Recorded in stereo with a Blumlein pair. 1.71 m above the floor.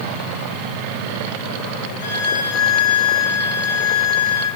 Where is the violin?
65° left, 4 m.